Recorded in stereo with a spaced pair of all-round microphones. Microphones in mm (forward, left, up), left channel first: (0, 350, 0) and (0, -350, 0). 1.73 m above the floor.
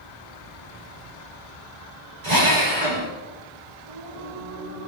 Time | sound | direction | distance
2.2 | a drill | 70° right (ahead or behind) | 4.5 m
3.9 | singing | 80° right | 6 m